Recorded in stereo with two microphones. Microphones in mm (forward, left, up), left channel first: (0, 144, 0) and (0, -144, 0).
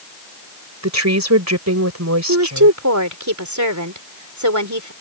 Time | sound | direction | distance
0.8 | a woman speaking | 65° right (ahead or behind) | ?
2.3 | a woman speaking | 75° right (ahead or behind) | ?